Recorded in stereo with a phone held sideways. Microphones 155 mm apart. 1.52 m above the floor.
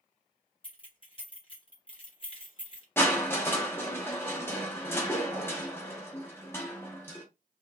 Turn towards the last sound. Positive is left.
turn(degrees=15)  # may be behind; listen again after turning